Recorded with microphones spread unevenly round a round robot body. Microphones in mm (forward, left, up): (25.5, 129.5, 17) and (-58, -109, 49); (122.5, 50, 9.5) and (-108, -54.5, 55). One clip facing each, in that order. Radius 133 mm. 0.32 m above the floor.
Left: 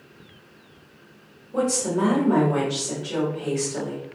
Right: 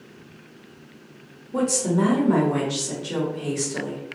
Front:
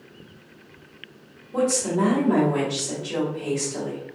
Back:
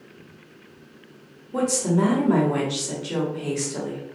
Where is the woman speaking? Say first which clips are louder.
Right 1 dB, even; 115° right, 1.0 m.